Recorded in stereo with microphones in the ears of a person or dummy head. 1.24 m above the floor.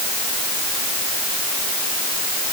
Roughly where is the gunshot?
I don't hear a gunshot.